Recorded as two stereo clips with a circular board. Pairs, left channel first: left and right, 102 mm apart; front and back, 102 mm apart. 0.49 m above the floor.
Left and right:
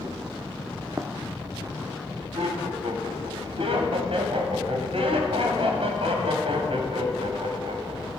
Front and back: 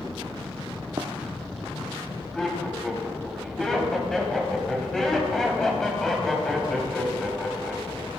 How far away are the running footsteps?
About 1.0 m.